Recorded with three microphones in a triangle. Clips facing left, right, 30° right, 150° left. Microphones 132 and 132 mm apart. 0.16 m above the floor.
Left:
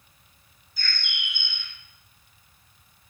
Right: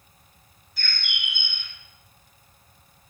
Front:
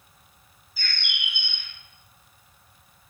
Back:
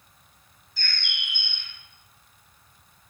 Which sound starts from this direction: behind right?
A bird, at 0.8 s.